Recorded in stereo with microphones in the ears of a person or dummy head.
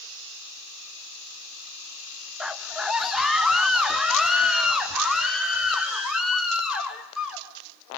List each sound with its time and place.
2.4 s a scream: 5° right (ahead or behind), 1.1 m; by 7.5 s centre (ahead or behind), 5 m